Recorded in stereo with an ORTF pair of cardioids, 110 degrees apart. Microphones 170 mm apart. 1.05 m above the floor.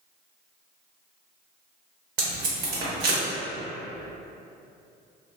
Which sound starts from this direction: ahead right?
Tape being pulled, at 2.2 s.